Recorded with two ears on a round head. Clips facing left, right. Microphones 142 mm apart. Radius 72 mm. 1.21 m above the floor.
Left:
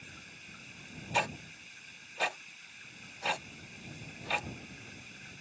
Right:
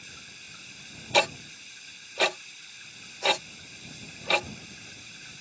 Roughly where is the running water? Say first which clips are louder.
Right 1 dB; right.